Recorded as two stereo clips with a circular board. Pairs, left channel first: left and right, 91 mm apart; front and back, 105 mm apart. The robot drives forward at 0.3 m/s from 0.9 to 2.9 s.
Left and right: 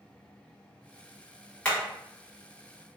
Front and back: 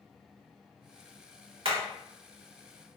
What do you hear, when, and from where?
1.6 s hammering: 160° left, 1.2 m; by 1.8 s 165° left, 1.2 m